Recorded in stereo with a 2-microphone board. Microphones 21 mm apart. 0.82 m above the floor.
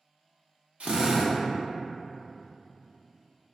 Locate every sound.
0.8 s a drill: 70° right (ahead or behind), 0.7 m